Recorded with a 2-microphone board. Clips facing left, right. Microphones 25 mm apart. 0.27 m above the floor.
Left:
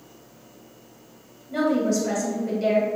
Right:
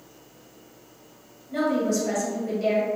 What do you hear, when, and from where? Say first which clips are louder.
1.5 s a woman speaking: left 2 dB; 10° left (ahead or behind), 1.1 m